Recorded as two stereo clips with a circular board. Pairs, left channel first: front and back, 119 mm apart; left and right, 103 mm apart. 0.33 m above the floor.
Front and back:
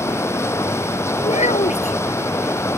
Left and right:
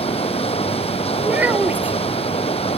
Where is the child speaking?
15° right.